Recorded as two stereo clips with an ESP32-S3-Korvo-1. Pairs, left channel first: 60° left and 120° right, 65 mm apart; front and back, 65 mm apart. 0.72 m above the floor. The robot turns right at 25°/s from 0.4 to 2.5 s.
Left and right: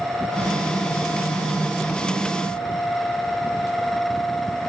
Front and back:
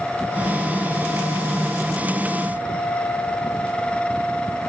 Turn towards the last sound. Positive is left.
No sound to turn to.